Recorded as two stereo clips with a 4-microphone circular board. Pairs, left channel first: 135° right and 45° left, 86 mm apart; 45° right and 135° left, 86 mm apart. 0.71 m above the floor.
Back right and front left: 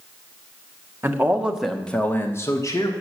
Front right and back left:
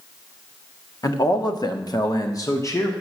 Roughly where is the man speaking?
Ahead.